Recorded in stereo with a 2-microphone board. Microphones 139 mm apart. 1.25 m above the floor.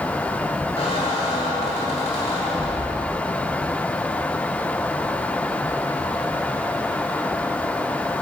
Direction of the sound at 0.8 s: 50° left (ahead or behind).